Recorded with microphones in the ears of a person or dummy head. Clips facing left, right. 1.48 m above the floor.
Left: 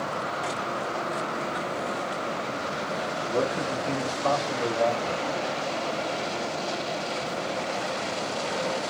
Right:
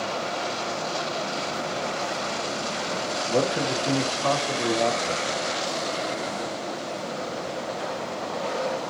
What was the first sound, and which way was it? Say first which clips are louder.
A man speaking: right 3 dB; 70° right (ahead or behind).